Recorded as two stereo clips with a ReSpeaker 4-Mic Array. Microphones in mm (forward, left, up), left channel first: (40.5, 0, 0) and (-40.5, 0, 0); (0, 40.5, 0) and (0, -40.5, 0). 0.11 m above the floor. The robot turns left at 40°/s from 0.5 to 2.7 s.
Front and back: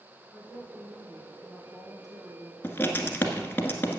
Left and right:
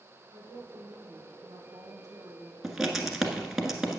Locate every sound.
0.3 s a woman speaking: 80° right, 4.5 m; by 2.5 s 160° right, 4.5 m
2.6 s writing: 10° right, 1.4 m